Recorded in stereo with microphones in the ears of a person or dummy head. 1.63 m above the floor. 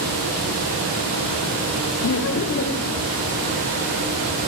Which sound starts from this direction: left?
Laughter, at 2.0 s.